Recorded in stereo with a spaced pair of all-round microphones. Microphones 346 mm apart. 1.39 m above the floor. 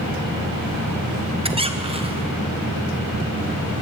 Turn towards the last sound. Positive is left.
turn(degrees=-15)  # may be behind; listen again after turning